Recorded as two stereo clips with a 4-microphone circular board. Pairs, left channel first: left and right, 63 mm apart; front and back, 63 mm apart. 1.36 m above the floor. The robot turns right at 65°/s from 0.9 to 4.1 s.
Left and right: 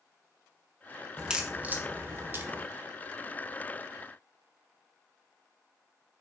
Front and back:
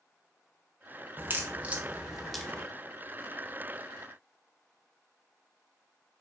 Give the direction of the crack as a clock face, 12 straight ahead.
5 o'clock.